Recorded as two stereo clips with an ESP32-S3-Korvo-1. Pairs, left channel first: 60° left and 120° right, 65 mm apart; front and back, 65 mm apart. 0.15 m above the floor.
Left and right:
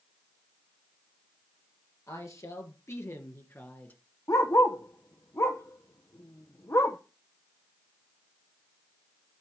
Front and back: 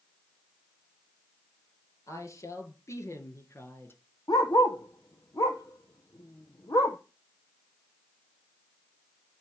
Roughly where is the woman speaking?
Ahead left.